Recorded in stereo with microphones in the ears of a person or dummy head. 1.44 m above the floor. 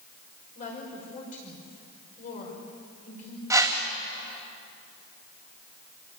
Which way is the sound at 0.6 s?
45° left (ahead or behind).